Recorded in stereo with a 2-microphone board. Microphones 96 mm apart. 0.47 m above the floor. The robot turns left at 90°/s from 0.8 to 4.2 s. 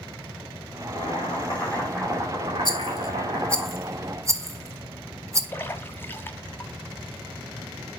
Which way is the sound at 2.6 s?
45° left (ahead or behind).